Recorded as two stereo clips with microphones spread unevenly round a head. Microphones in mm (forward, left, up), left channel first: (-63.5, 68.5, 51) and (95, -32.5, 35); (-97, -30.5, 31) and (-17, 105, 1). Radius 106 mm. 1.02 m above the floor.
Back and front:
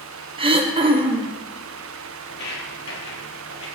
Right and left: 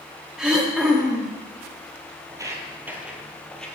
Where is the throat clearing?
10° right, 0.9 m.